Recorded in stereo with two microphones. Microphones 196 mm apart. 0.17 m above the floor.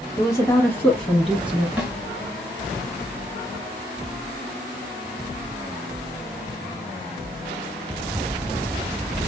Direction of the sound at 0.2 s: 20° left (ahead or behind).